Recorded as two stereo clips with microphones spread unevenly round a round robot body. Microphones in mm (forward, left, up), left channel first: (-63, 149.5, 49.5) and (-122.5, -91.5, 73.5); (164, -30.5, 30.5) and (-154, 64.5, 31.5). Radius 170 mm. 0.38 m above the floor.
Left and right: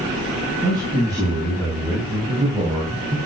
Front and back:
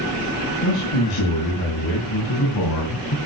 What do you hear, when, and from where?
0.6 s a man speaking: 25° right, 5 m; by 3.2 s 40° right, 3 m